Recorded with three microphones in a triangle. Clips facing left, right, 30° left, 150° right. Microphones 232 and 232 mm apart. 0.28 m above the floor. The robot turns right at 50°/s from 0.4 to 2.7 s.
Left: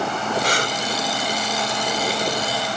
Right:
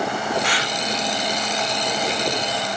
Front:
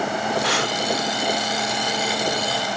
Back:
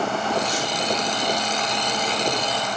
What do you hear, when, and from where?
0.4 s breathing: 40° left; by 0.8 s 60° left